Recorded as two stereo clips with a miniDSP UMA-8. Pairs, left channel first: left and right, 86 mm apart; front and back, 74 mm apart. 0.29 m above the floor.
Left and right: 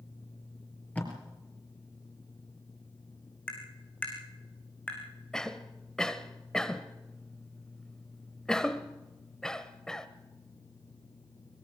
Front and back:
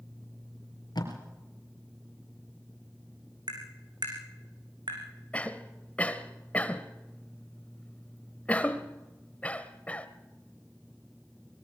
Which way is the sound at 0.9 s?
20° left.